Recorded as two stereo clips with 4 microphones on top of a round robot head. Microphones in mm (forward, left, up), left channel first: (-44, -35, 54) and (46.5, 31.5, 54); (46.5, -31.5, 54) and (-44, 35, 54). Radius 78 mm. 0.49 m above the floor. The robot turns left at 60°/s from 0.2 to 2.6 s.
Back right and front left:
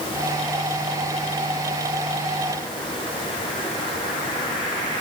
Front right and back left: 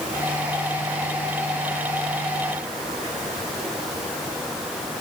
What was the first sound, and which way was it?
Only background noise.